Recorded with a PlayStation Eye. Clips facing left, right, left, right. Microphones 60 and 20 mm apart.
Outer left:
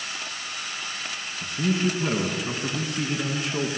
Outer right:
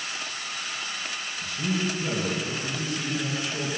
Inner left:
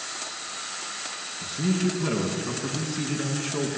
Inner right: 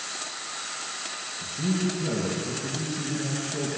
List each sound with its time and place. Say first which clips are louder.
1.4 s a man speaking: outer left 4 dB, inner left 2 dB; 50° left (ahead or behind), 4 m